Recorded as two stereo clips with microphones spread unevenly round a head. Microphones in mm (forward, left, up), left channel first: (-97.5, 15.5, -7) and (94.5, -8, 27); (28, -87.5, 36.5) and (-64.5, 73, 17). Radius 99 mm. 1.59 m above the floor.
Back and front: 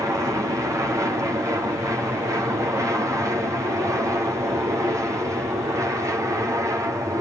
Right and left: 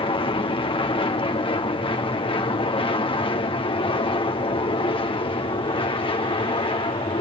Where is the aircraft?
80° right.